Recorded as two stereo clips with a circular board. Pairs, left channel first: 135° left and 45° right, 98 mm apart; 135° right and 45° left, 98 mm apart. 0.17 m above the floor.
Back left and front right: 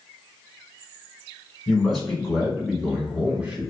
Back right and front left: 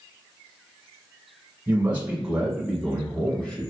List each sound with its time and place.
1.7 s a man speaking: 60° left, 1.4 m; by 3.7 s 90° right, 1.3 m